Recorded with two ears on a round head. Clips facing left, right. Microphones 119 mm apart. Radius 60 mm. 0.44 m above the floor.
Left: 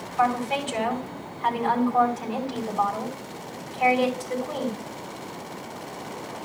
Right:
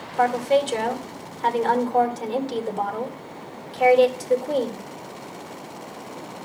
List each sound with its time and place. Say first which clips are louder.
0.2 s a woman speaking: right 4 dB; 40° right (ahead or behind), 2.5 m